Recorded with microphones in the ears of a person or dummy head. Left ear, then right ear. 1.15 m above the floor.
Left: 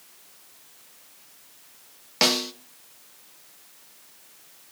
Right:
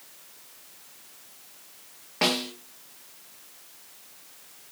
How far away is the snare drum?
About 1.3 m.